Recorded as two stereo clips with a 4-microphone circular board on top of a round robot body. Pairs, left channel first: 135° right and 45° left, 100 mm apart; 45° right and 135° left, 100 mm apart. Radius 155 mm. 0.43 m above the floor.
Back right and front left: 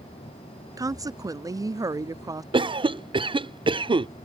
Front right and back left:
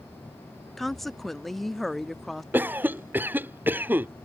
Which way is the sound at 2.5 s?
65° left.